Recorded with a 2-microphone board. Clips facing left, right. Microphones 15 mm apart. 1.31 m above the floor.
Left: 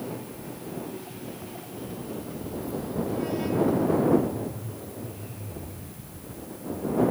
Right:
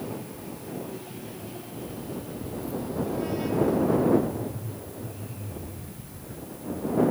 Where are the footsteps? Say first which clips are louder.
Even; 30° left (ahead or behind); by 7.0 s 5° right (ahead or behind).